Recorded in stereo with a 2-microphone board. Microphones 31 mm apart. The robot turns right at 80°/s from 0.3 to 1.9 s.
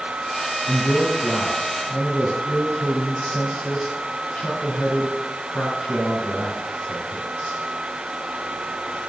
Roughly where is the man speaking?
Ahead right.